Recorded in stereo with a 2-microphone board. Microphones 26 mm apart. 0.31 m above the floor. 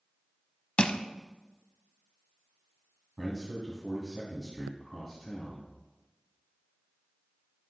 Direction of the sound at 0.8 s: 45° left (ahead or behind).